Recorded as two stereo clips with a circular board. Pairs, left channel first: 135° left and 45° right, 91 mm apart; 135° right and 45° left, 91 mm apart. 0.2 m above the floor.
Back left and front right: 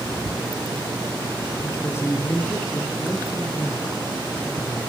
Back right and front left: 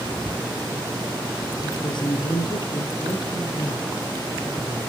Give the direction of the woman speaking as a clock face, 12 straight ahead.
5 o'clock.